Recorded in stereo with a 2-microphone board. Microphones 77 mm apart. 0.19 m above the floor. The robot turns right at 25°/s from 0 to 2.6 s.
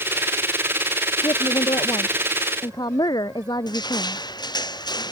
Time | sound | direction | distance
1.2 | a woman speaking | 80° left | ?
3.7 | crushing | 70° left (ahead or behind) | ?